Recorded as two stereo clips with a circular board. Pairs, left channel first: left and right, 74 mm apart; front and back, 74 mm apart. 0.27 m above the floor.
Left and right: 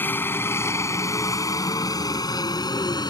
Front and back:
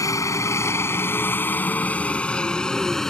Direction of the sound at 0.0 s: 30° left.